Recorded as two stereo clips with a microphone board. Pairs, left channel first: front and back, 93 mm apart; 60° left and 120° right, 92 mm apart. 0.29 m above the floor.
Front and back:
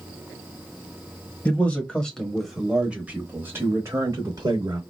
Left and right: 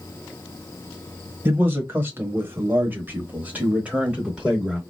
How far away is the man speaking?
About 1.3 m.